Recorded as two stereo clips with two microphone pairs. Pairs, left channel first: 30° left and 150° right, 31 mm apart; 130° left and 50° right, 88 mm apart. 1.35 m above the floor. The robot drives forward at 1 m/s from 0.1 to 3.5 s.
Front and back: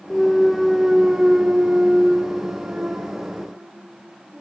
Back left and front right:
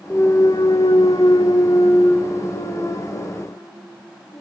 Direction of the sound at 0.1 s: 70° left.